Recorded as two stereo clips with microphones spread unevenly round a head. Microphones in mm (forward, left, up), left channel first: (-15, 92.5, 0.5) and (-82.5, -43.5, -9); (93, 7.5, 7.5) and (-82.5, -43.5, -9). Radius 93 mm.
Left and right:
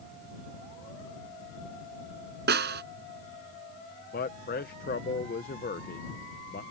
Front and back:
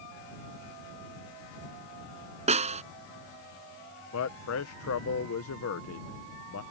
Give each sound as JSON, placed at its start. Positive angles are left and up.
{"t": 2.5, "sound": "a snare drum", "azimuth_deg": -110}
{"t": 4.1, "sound": "a man speaking", "azimuth_deg": 20}